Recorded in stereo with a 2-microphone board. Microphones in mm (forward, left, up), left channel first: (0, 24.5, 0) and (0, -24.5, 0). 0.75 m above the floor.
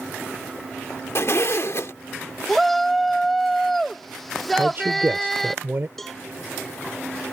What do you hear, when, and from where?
1.1 s a zipper: 60° left (ahead or behind)
2.5 s a shout: 5° left (ahead or behind)
4.5 s a man speaking: 50° right (ahead or behind)
6.0 s a cowbell: 5° left (ahead or behind)